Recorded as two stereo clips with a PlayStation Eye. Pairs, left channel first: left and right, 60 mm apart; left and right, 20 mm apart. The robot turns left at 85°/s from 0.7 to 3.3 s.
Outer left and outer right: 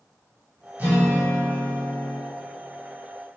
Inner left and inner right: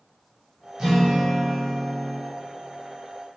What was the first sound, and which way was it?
A guitar, 50° right.